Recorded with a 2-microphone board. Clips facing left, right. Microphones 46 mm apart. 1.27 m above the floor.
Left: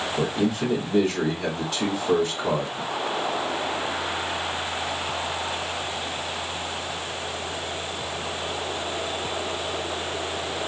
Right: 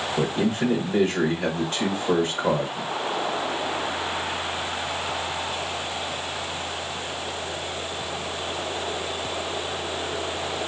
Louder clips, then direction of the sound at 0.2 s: Right 1 dB; 45° right (ahead or behind).